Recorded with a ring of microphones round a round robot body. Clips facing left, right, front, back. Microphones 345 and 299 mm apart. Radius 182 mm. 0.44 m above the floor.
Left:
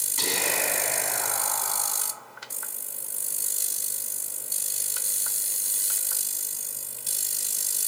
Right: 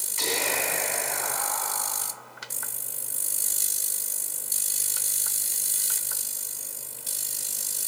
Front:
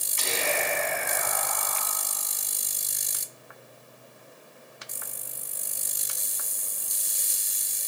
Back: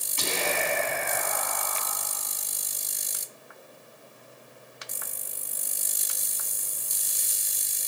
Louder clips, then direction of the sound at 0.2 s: Right 1 dB, back 1 dB; 135° left.